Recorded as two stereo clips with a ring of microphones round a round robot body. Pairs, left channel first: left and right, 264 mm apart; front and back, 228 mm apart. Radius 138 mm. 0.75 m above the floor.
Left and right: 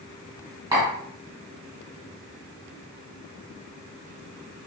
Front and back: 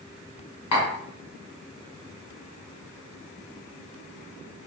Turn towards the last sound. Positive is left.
turn(degrees=-15)